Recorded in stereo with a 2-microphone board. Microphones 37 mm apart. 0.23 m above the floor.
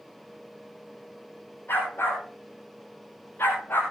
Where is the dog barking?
70° left (ahead or behind), 9.5 m; by 3.8 s 75° left (ahead or behind), 8.5 m.